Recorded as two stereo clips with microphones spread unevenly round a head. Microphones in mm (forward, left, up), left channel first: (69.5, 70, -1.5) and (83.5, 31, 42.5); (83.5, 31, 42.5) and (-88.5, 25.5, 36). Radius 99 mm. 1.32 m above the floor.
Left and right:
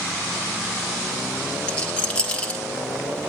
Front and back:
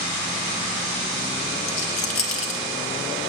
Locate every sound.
1.7 s a rattle: 55° left, 1.9 m